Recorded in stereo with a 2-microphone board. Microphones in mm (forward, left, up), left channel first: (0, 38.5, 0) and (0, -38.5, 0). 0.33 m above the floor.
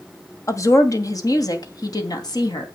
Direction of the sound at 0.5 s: 40° left (ahead or behind).